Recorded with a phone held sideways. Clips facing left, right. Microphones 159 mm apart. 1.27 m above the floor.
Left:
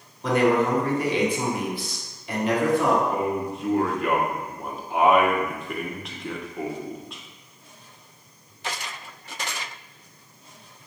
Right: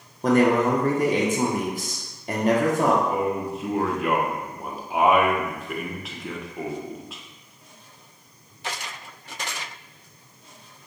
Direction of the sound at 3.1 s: 5° right (ahead or behind).